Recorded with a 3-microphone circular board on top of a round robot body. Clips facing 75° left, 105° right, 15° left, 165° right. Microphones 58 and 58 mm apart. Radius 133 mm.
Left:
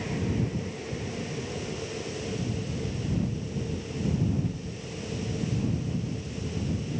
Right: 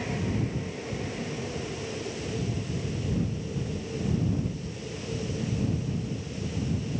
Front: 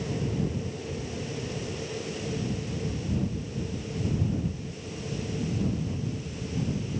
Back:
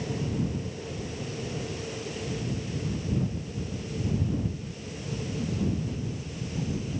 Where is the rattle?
I don't hear a rattle.